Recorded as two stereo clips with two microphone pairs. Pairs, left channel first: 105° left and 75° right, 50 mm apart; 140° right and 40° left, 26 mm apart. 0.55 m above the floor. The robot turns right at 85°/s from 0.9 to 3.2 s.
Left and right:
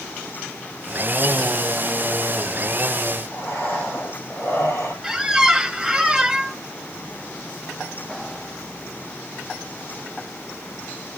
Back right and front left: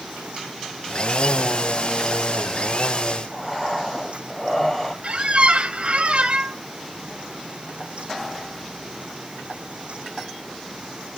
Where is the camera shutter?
I don't hear a camera shutter.